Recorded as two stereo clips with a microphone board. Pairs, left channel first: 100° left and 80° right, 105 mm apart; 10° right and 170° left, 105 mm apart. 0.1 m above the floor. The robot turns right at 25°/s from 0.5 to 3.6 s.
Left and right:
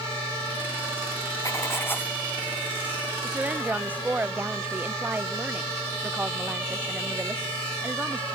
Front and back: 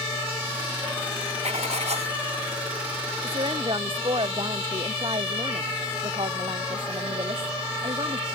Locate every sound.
1.4 s writing: 160° left; by 2.2 s 175° left
3.2 s a woman speaking: 160° right; by 8.2 s 155° right